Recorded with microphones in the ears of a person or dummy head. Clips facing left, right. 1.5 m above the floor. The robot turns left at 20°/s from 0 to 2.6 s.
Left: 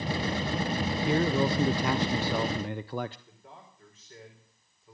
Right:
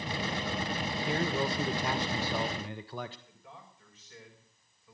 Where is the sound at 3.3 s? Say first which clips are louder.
Left 1 dB; 40° left (ahead or behind), 5 m.